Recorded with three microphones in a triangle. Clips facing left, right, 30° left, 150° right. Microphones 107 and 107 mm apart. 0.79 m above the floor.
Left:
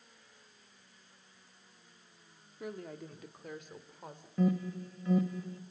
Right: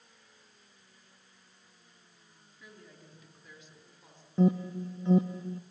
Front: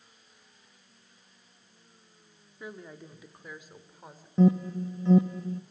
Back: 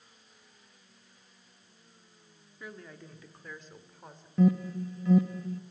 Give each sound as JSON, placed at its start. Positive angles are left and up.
{"t": 2.6, "sound": "a woman speaking", "azimuth_deg": 95, "distance_m": 1.9}
{"t": 4.4, "sound": "an alarm", "azimuth_deg": -30, "distance_m": 0.9}